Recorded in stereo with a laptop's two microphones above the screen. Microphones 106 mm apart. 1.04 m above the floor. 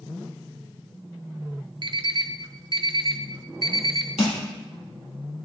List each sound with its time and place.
1.8 s an alarm clock: 50° right (ahead or behind), 0.5 m
4.2 s crushing: 70° left (ahead or behind), 1.8 m